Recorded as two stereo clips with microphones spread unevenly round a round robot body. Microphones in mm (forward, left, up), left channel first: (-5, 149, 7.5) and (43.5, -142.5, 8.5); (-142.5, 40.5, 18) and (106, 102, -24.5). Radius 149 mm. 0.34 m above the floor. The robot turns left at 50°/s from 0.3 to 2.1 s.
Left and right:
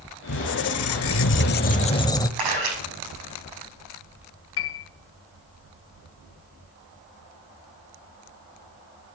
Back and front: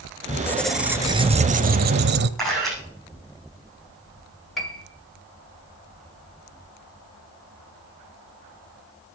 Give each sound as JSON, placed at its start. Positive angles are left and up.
{"t": 0.3, "sound": "a squeak", "azimuth_deg": 115, "distance_m": 0.8}
{"t": 2.4, "sound": "a camera shutter", "azimuth_deg": -80, "distance_m": 9.0}
{"t": 4.6, "sound": "a piano", "azimuth_deg": 95, "distance_m": 1.8}